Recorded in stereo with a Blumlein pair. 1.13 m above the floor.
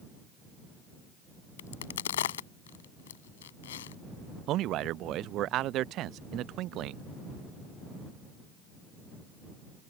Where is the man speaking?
35° right.